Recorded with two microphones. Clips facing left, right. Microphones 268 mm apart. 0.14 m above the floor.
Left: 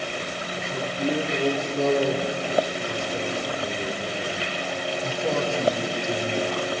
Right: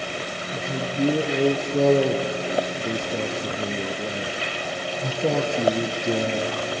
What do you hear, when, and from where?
0.5 s a man speaking: 60° right (ahead or behind), 2.5 m